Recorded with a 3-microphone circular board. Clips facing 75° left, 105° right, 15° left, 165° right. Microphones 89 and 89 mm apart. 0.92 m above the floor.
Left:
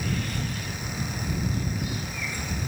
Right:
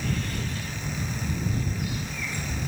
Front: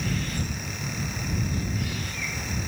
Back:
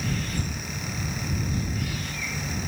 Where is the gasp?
No gasp in this recording.